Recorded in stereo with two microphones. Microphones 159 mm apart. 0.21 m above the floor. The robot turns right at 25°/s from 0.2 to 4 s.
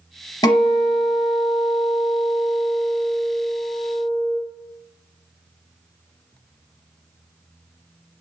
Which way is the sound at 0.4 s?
140° left.